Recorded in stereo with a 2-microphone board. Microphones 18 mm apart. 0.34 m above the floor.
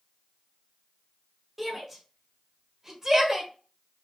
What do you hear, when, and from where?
1.6 s a shout: 5° right (ahead or behind), 1.7 m; by 3.5 s 20° right (ahead or behind), 1.5 m